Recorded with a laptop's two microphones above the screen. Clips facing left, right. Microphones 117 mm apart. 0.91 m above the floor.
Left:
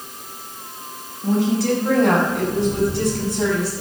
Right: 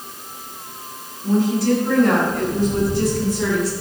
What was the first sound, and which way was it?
A woman speaking, 85° left.